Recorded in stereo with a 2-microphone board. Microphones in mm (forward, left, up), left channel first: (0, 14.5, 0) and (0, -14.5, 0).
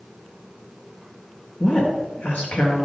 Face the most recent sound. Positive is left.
turn(degrees=70)  # may be behind; listen again after turning